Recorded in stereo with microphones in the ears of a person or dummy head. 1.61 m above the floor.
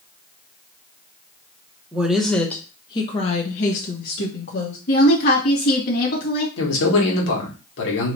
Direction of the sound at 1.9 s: 10° right (ahead or behind).